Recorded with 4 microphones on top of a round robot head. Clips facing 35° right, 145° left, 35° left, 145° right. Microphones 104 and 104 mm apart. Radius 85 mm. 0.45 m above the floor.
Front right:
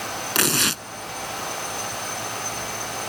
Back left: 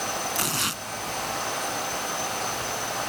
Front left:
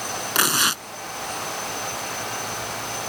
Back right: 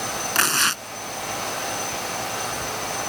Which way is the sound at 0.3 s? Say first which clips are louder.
Front right 5 dB, front left 1 dB; 45° right.